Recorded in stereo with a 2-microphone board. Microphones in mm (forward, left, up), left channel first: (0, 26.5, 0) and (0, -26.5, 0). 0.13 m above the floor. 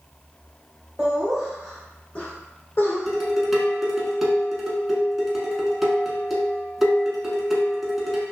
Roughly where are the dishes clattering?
Centre.